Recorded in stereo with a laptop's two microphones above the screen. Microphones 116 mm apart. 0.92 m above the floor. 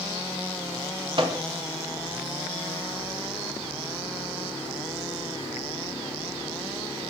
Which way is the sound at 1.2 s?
45° right (ahead or behind).